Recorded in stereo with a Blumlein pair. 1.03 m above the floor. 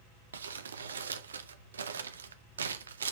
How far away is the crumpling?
About 0.7 m.